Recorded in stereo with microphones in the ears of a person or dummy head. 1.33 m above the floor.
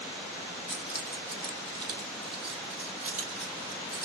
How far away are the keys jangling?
About 1.1 m.